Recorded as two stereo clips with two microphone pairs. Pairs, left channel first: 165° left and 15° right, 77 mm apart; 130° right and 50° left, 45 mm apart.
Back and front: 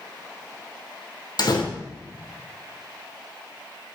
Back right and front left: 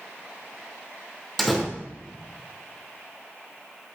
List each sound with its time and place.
1.4 s a door slam: 145° left, 2.5 m